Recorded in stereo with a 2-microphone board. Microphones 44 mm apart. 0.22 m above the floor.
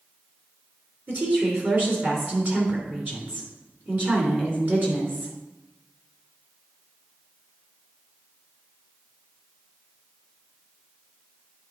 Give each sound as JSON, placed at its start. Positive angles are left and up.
{"t": 1.1, "sound": "a woman speaking", "side_deg": -40, "distance_m": 2.5}